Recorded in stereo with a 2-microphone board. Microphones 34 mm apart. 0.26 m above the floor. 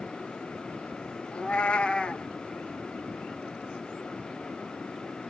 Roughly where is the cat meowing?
Left.